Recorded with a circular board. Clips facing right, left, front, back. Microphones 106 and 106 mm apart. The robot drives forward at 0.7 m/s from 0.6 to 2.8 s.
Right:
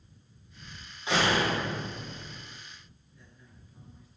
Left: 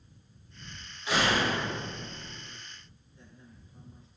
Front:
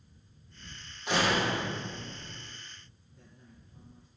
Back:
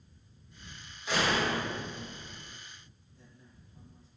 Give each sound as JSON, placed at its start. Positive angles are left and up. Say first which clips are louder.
{"t": 1.1, "sound": "a door slam", "louder": "right 1 dB, front 1 dB", "azimuth_deg": -25, "distance_m": 9.0}
{"t": 3.1, "sound": "a man speaking", "louder": "left 4 dB, front 2 dB", "azimuth_deg": 25, "distance_m": 5.5}